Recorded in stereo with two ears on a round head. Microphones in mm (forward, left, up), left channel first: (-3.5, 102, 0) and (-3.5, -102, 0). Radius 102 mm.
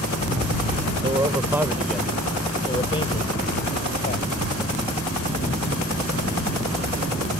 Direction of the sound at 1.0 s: 20° right (ahead or behind).